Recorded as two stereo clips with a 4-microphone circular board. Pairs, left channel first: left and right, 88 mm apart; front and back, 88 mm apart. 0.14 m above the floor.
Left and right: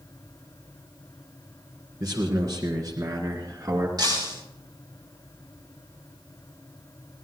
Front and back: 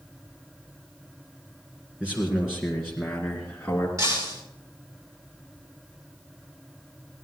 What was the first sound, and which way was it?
A man speaking, 110° right.